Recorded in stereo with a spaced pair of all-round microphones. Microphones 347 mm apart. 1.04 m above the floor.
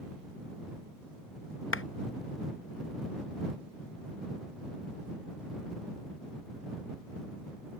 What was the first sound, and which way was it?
A clap, 35° left (ahead or behind).